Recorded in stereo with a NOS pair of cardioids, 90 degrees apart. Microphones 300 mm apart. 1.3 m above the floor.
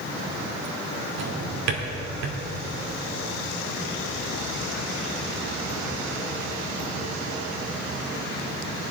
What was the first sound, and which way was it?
A drawer, 65° right.